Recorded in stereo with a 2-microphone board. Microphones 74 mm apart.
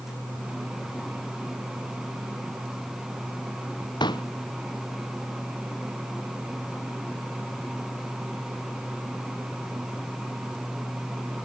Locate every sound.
4.0 s a pop: 85° left